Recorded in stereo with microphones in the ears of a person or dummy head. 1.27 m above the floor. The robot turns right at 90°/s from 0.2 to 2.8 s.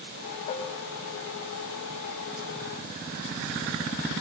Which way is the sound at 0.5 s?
35° left (ahead or behind).